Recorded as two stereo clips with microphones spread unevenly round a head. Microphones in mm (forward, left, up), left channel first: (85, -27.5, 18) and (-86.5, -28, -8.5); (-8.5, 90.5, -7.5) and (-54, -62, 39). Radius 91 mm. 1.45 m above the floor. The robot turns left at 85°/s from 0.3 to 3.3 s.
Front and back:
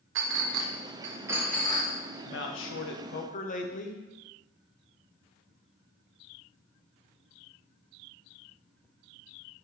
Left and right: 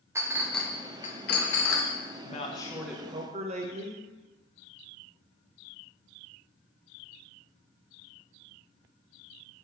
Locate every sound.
0.1 s a clink: 175° right, 0.8 m; by 1.9 s 50° left, 0.8 m
2.2 s a man speaking: 45° left, 0.9 m; by 4.0 s 45° right, 0.9 m